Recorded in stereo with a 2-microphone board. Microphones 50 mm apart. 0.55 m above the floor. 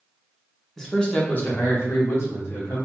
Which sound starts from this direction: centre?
A man speaking, at 0.8 s.